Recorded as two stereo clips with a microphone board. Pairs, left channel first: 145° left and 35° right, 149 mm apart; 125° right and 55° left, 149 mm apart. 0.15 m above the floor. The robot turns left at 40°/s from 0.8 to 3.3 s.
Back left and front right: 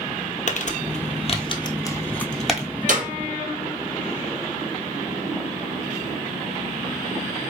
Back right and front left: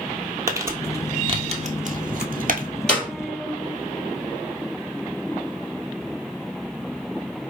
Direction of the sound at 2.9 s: 40° right.